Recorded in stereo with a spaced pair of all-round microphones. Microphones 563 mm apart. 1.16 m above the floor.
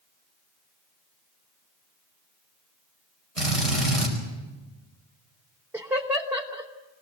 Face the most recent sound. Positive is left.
turn(degrees=-5)  # may be behind; listen again after turning